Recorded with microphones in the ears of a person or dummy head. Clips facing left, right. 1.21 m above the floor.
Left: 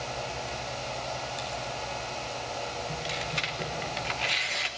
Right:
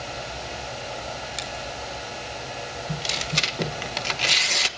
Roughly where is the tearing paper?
Right.